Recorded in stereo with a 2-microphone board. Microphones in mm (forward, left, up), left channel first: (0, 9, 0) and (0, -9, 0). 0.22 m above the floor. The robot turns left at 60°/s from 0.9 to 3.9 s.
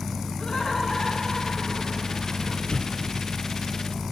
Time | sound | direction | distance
0.4 | laughter | 85° left | 2.5 m
2.7 | an explosion | 70° left (ahead or behind) | 0.7 m